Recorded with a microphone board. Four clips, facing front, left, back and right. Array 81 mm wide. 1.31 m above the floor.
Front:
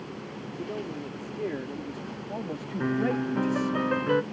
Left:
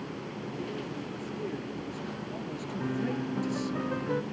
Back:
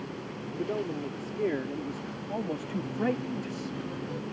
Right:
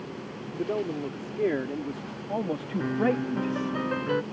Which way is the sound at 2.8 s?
20° right.